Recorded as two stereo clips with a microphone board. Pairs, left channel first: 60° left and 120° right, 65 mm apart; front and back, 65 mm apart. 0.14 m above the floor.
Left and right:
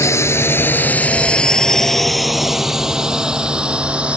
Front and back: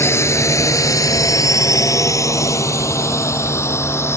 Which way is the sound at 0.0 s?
35° left.